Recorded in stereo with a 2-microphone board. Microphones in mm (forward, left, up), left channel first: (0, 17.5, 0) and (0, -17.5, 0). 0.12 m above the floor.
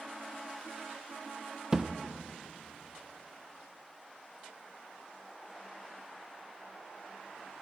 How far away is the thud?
About 0.9 m.